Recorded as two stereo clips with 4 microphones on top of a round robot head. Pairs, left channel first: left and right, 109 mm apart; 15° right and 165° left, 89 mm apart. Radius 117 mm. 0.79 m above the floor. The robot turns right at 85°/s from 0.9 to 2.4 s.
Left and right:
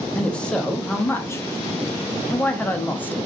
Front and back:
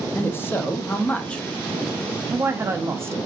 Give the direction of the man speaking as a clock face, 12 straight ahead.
11 o'clock.